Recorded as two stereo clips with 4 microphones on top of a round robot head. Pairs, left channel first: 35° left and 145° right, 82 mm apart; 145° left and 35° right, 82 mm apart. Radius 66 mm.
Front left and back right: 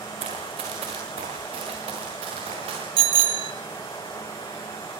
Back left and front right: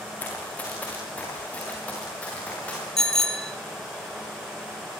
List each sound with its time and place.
0.2 s running footsteps: 140° right, 7 m
3.0 s a bicycle bell: 130° right, 2.5 m